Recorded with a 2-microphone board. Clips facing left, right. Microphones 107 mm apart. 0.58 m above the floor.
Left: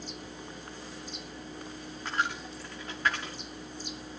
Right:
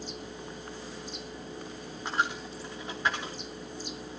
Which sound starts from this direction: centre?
A dropped coin, at 2.0 s.